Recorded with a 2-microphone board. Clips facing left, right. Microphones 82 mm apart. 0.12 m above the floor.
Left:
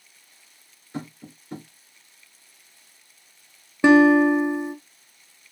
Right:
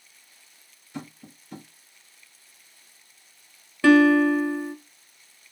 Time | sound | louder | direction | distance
0.9 | tapping | left 4 dB | 40° left (ahead or behind) | 1.9 m
3.8 | a guitar | left 2 dB | 20° left (ahead or behind) | 0.7 m